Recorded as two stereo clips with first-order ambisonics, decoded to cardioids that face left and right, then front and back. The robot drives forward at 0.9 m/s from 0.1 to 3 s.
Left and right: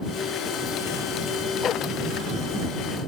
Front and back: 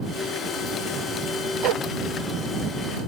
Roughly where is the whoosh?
Behind left.